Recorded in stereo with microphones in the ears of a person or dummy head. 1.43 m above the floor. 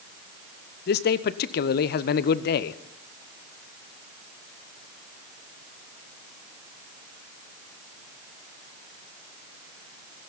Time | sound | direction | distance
0.9 | a man speaking | 45° left (ahead or behind) | 0.9 m